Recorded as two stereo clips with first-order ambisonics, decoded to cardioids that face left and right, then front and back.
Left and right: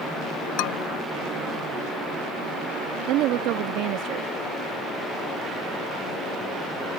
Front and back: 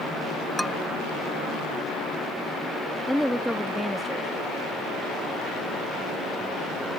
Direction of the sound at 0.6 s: 85° left.